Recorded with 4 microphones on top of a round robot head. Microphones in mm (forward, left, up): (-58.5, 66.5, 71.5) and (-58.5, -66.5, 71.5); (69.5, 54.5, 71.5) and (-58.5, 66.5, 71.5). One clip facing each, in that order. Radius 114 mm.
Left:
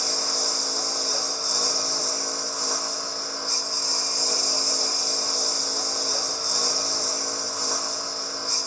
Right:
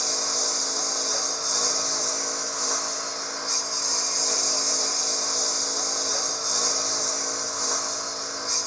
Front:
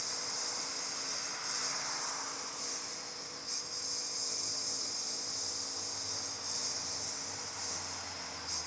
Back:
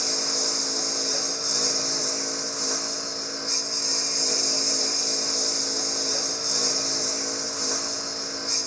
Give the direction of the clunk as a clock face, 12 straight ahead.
I don't hear a clunk.